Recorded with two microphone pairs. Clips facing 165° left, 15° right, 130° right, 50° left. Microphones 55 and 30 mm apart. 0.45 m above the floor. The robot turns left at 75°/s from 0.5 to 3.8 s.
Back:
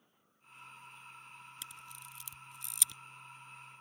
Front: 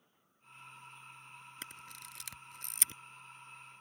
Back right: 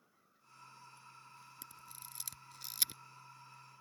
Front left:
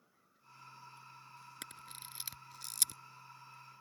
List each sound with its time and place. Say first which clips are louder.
1.6 s a camera shutter: front 2 dB, front left 7 dB; 30° left; by 3.0 s 75° right